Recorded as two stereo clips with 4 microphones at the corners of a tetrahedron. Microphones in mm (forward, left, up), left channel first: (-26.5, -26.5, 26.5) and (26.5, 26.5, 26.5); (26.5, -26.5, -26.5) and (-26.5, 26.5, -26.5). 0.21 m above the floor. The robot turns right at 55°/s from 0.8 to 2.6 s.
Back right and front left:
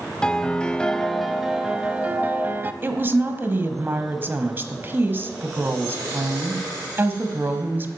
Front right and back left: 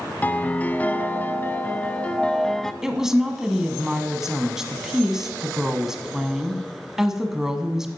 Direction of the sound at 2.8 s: 60° left.